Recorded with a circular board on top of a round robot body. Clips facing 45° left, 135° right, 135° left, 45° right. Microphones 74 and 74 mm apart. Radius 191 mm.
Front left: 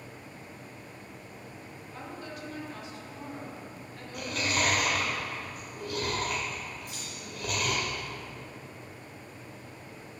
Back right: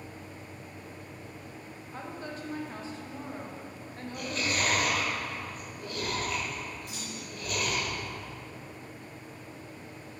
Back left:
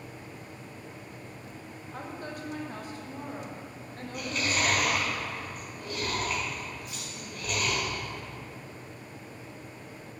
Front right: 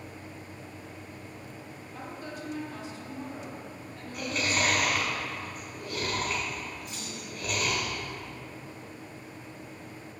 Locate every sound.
1.9 s a woman speaking: 175° left, 1.3 m
4.1 s chewing: 40° left, 1.3 m
6.9 s a clunk: 100° right, 2.0 m